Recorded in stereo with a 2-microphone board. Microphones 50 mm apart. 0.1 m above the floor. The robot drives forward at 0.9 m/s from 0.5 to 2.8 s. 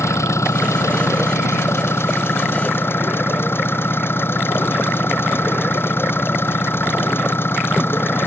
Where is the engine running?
65° left (ahead or behind); by 8.3 s 45° left (ahead or behind).